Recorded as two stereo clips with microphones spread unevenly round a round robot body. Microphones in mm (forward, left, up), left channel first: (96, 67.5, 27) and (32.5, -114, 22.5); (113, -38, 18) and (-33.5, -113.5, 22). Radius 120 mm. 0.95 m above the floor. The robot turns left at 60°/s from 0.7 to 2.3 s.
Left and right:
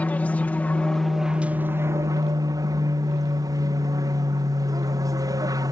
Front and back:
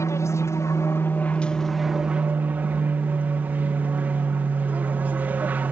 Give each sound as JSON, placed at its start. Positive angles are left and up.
{"t": 0.0, "sound": "an aircraft", "azimuth_deg": 5}